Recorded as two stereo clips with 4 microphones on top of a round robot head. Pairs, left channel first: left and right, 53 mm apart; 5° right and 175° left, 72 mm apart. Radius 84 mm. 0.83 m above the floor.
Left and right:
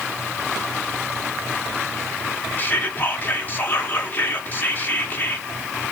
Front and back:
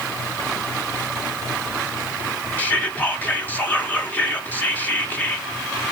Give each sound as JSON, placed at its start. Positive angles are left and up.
{"t": 2.6, "sound": "whispering", "azimuth_deg": 55, "distance_m": 1.2}